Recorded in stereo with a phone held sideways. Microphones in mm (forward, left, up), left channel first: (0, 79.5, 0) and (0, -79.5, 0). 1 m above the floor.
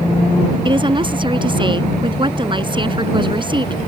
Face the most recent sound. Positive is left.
turn(degrees=-30)  # may be behind; listen again after turning